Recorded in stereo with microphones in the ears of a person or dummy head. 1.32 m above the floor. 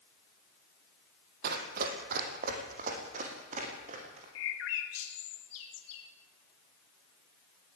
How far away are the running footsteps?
About 3 m.